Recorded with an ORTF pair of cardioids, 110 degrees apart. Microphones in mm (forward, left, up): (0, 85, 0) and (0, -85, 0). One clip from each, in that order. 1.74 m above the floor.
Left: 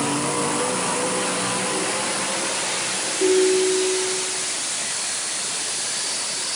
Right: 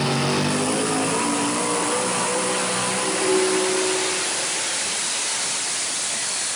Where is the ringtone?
45° left, 3.5 m.